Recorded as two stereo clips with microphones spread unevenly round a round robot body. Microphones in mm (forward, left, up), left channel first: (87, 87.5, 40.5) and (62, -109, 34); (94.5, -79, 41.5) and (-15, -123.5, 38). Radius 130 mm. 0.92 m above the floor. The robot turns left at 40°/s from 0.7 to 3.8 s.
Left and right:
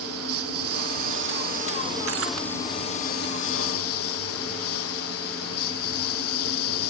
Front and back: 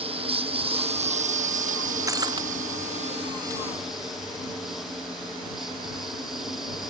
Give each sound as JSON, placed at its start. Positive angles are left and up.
{"t": 0.0, "sound": "a lawn mower", "azimuth_deg": -125}
{"t": 2.1, "sound": "breaking glass", "azimuth_deg": -95}